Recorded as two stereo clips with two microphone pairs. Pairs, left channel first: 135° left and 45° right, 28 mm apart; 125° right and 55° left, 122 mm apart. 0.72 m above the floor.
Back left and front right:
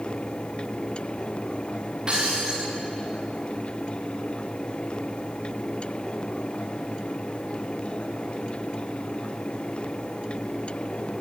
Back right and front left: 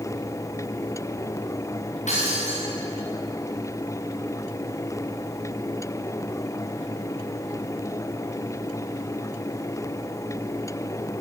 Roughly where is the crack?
I don't hear a crack.